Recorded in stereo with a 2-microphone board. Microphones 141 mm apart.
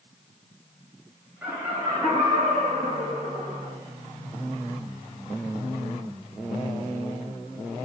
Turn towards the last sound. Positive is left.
turn(degrees=-65)  # may be behind; listen again after turning